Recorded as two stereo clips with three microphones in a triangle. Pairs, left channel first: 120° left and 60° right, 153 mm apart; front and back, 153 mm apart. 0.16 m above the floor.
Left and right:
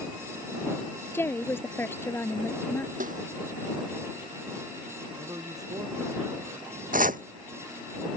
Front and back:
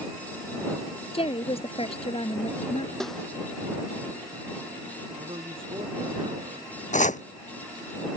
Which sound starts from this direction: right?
A snare drum, at 3.0 s.